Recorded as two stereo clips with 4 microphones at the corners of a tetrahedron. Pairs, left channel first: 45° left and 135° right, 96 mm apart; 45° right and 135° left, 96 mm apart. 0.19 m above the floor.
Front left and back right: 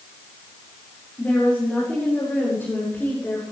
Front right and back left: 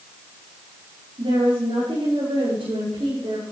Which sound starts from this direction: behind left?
A woman speaking, at 1.2 s.